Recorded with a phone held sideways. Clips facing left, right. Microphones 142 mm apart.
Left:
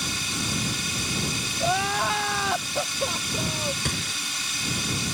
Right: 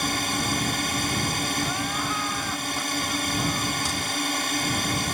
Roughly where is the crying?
Left.